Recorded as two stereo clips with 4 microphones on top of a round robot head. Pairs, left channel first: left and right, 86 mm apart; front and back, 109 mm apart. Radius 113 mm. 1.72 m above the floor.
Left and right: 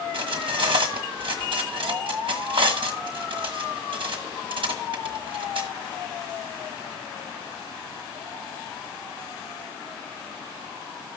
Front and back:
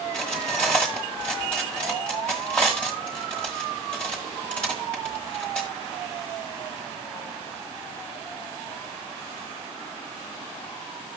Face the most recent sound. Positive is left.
turn(degrees=-85)